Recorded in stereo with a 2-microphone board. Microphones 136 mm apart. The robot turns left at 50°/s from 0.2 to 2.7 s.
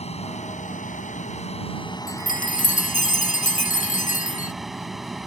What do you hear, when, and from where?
0.0 s an aircraft: 125° left; by 5.3 s straight ahead
2.1 s a chime: 100° left; by 4.5 s 65° left